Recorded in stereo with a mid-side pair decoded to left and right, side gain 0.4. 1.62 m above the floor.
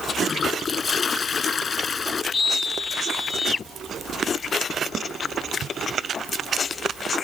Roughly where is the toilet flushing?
Ahead left.